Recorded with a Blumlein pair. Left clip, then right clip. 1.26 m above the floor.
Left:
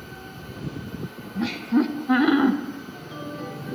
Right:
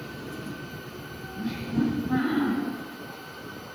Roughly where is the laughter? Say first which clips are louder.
Left 7 dB; ahead left.